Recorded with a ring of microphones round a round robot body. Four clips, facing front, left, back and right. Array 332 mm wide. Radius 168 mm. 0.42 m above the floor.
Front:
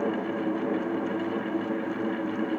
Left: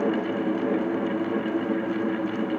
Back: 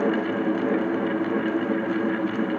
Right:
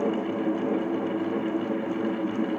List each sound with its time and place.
Only background noise.